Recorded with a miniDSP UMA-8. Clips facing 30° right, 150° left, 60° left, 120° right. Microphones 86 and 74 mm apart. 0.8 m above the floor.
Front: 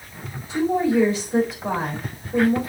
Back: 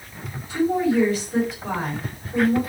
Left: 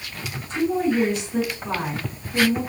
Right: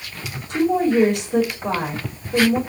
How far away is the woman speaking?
About 4.5 m.